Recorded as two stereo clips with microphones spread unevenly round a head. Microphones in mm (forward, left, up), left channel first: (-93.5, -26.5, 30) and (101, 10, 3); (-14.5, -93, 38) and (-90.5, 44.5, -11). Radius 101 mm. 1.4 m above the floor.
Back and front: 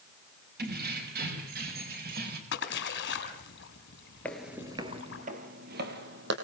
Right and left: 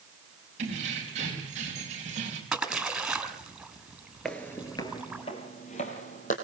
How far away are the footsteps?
About 1.5 m.